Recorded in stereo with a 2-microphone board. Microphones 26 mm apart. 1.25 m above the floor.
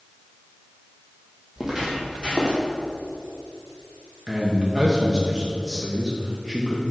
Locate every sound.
1.6 s footsteps: 15° right (ahead or behind), 1.8 m; by 2.6 s 35° right (ahead or behind), 2.5 m
4.3 s a man speaking: 10° right (ahead or behind), 0.9 m